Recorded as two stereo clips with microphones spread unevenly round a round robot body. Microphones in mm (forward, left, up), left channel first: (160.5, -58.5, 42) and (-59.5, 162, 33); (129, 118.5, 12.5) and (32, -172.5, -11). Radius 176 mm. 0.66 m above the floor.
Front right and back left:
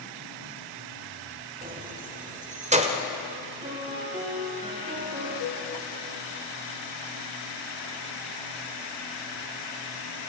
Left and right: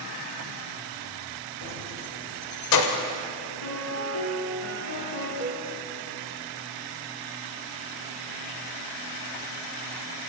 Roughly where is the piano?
Left.